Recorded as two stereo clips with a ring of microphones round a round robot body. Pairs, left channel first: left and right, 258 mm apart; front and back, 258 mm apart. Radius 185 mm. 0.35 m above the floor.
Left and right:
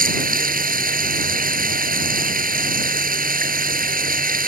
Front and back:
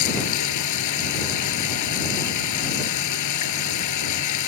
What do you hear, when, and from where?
0.0 s running water: 35° right